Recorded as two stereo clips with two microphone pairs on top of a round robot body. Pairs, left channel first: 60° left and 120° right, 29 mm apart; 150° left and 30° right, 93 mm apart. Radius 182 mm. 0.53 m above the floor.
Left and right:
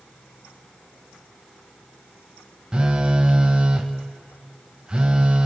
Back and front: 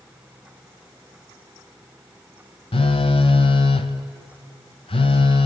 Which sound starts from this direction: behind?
A phone buzzing, at 2.7 s.